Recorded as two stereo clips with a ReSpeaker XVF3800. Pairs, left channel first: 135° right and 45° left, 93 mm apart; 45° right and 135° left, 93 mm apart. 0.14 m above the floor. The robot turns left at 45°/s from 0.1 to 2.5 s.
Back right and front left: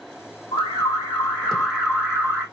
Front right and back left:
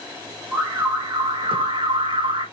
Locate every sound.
0.5 s an alarm: 175° right, 5 m; by 2.5 s 100° left, 5 m